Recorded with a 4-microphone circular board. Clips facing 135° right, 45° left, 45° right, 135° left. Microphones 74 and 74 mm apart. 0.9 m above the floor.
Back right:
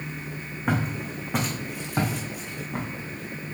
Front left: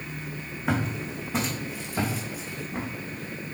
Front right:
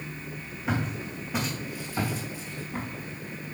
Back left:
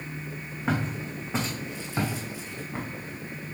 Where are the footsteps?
170° right, 3.5 m; by 2.9 s 150° right, 3.5 m.